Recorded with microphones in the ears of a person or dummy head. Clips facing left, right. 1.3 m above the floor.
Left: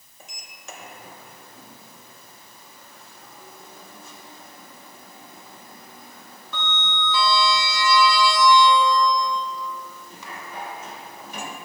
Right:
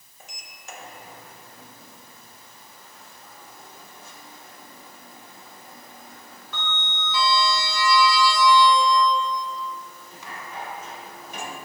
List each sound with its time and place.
0.2 s a sliding door: 85° left, 1.0 m